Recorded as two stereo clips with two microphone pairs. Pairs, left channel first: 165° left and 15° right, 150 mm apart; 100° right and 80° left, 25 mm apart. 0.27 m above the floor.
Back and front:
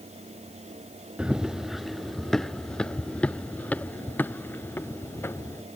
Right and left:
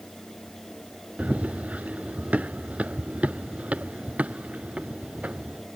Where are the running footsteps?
70° left; by 5.6 s 90° left.